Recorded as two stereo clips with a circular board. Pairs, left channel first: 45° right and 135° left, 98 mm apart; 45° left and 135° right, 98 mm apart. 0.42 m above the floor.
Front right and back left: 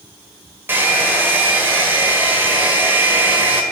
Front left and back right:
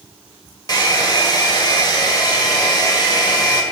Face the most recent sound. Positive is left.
turn(degrees=75)